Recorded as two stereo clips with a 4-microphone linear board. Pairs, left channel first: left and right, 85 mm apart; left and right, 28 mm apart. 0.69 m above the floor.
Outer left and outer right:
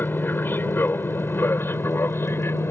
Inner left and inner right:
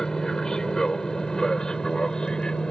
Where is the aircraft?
25° left (ahead or behind); by 2.7 s 30° left (ahead or behind).